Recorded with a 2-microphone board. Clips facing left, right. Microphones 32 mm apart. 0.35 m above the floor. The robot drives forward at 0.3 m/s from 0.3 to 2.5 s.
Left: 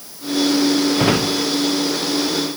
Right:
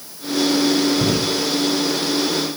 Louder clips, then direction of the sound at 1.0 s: Left 2 dB; 55° left (ahead or behind).